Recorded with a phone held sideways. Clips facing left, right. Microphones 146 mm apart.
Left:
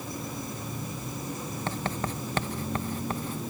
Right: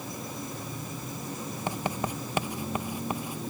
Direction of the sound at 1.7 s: 15° right (ahead or behind).